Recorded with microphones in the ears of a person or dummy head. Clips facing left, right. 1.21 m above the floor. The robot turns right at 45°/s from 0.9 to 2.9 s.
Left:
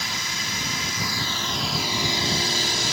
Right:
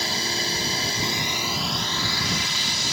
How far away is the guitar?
I don't hear a guitar.